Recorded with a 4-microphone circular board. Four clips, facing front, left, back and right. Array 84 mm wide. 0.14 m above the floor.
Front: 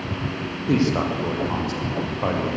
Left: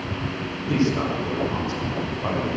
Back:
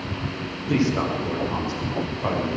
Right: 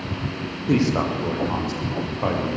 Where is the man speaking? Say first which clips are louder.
Right 2 dB, front 1 dB; 55° right, 6.5 m; by 2.5 s 45° right, 9 m.